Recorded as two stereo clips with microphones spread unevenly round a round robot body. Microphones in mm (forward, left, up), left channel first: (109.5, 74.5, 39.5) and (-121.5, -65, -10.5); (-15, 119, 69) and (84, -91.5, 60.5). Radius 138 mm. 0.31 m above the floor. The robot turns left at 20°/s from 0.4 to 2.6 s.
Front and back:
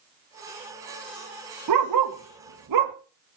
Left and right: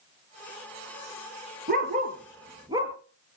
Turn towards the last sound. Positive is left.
turn(degrees=-140)